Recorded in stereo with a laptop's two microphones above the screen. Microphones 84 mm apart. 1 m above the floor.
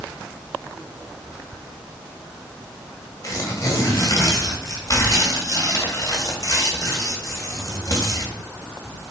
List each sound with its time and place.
3.2 s tearing paper: 45° left (ahead or behind), 1.9 m